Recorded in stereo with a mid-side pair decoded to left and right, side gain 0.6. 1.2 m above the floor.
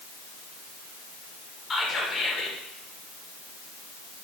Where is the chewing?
No chewing in this recording.